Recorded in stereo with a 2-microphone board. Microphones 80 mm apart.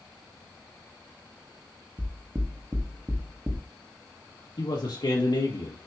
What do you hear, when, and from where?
2.0 s knocking: 30° right (ahead or behind), 1.4 m
4.6 s a man speaking: 60° left (ahead or behind), 2.0 m